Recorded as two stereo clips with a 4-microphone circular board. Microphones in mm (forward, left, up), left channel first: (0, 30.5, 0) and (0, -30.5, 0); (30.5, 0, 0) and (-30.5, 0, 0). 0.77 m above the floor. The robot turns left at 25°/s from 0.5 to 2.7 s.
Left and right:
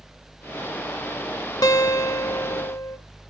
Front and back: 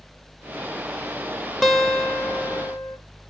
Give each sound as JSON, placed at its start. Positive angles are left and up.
{"t": 1.6, "sound": "a guitar", "azimuth_deg": 90, "distance_m": 0.5}